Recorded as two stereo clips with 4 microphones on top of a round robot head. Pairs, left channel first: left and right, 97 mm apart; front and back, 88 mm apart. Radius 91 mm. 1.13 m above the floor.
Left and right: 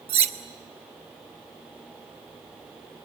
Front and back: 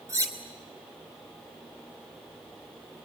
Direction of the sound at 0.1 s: 110° right.